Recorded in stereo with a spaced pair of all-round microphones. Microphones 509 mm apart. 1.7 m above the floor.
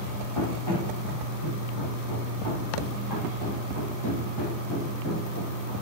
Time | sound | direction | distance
0.3 | running footsteps | 75° left (ahead or behind) | 5.5 m